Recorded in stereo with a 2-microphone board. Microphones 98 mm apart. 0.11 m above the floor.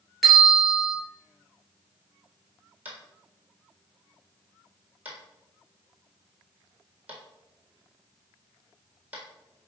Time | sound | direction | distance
0.2 | a bell | centre (ahead or behind) | 2 m
2.9 | tapping | 15° right (ahead or behind) | 1.6 m